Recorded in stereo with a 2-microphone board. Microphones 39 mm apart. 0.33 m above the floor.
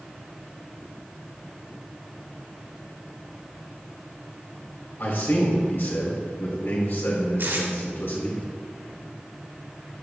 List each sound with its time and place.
5.0 s a man speaking: 65° left (ahead or behind), 3.5 m
7.4 s tape being pulled: 60° right (ahead or behind), 1.8 m